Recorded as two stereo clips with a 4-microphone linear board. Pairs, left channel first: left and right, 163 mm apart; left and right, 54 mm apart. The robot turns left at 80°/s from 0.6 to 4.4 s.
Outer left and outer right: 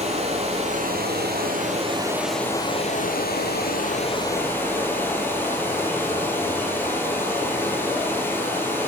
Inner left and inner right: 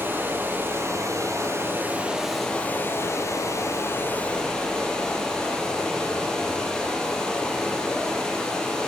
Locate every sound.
0.0 s running water: 45° right, 5.5 m; by 8.9 s 15° left, 5.5 m